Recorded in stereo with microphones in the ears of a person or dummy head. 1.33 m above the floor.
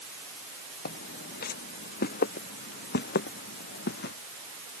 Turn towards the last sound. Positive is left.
turn(degrees=60)  # may be behind; listen again after turning